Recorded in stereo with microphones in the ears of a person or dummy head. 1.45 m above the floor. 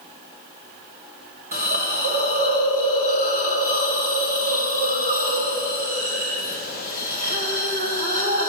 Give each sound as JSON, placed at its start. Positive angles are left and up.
{"t": 1.5, "sound": "a hiss", "side_deg": -50, "distance_m": 1.6}